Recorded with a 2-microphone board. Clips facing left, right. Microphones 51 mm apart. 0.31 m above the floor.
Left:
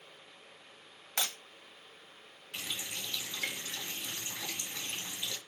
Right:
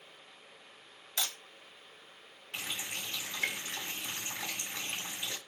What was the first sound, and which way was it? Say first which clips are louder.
Breaking glass: left 1 dB; 55° left (ahead or behind).